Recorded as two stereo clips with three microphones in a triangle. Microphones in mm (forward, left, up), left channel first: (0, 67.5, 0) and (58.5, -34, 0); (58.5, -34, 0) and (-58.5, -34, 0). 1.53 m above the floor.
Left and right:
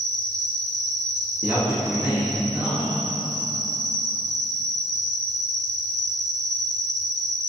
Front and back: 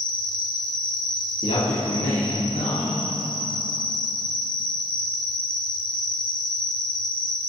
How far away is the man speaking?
About 3 m.